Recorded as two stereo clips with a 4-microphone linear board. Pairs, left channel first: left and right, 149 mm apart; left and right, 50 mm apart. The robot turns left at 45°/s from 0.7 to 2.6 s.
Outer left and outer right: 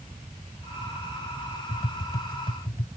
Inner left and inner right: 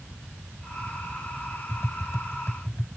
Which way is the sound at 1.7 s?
80° left.